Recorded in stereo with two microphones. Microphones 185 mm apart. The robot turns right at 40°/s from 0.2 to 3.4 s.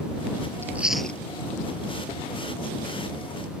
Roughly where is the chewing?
Centre.